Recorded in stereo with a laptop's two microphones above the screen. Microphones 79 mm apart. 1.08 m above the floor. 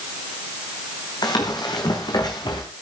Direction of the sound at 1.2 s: 60° left (ahead or behind).